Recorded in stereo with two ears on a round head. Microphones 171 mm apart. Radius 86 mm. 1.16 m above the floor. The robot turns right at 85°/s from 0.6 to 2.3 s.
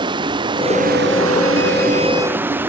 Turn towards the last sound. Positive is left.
turn(degrees=-10)